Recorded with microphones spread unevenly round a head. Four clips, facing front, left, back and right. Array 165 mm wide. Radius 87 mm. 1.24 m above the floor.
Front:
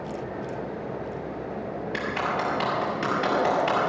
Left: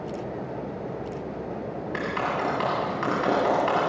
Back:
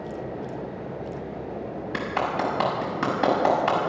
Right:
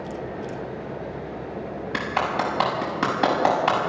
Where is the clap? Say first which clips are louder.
Right 3 dB, back 2 dB; 130° right, 6.5 m.